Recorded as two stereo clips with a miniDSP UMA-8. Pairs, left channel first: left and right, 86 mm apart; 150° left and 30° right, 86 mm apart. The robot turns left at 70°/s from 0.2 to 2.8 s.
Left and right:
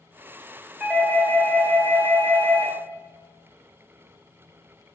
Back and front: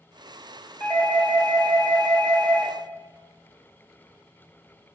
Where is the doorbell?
170° right, 1.5 m; by 2.8 s 50° left, 1.5 m.